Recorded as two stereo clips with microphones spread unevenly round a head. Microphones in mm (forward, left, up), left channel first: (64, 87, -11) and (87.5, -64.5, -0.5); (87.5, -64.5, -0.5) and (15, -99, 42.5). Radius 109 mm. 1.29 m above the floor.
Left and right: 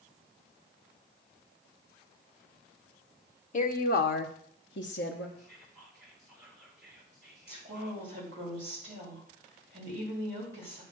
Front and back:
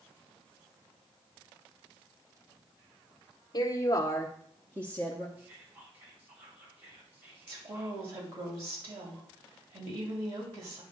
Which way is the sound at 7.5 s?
150° right.